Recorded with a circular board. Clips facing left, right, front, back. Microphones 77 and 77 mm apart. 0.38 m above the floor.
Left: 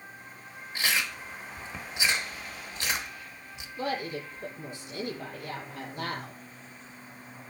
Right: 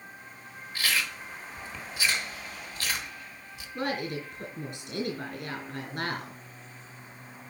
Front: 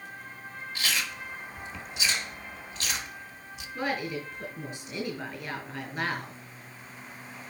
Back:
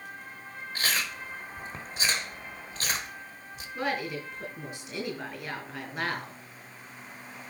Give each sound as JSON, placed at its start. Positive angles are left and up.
{"t": 0.8, "sound": "chewing", "azimuth_deg": 150, "distance_m": 1.2}
{"t": 3.8, "sound": "a woman speaking", "azimuth_deg": -95, "distance_m": 4.0}